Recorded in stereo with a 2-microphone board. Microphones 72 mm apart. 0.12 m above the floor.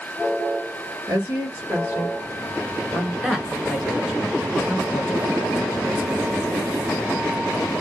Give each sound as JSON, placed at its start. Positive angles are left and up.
{"t": 1.1, "sound": "a woman speaking", "side_deg": -40, "distance_m": 2.5}
{"t": 3.2, "sound": "a man speaking", "side_deg": -5, "distance_m": 1.4}